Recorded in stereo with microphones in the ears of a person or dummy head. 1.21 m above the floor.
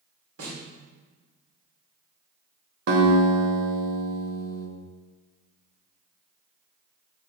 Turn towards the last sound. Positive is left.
turn(degrees=-60)  # may be behind; listen again after turning